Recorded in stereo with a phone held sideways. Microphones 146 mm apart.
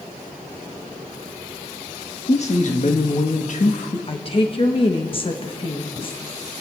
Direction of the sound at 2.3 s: 45° left (ahead or behind).